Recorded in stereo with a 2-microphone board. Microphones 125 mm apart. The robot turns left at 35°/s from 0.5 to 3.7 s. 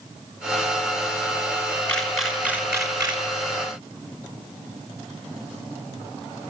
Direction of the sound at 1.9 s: 10° left (ahead or behind).